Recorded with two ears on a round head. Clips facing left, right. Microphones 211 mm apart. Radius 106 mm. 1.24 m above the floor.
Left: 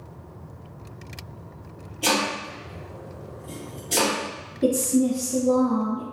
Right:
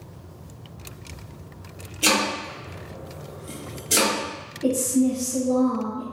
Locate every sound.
2.0 s chopping: 30° right (ahead or behind), 1.2 m
4.6 s a woman speaking: 80° left, 0.6 m